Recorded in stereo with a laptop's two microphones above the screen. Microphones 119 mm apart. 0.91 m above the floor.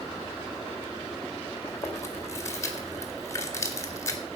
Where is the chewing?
25° left (ahead or behind), 1.8 m.